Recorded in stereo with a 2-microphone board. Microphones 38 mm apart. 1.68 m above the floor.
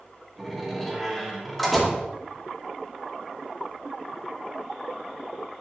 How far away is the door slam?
About 2.5 m.